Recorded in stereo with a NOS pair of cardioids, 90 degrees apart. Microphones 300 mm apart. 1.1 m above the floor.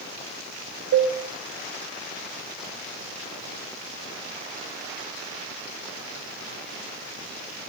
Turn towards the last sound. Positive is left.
turn(degrees=-45)